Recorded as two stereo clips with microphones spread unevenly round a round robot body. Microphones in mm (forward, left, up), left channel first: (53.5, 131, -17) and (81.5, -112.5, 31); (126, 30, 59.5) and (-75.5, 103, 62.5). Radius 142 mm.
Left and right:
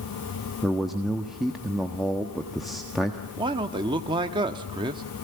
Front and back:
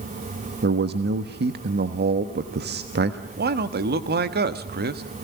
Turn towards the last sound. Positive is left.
turn(degrees=-160)